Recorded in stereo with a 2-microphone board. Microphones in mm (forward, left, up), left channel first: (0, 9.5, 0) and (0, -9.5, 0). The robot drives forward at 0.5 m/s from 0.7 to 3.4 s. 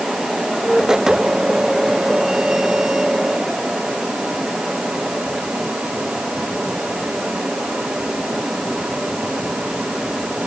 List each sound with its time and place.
Only background noise.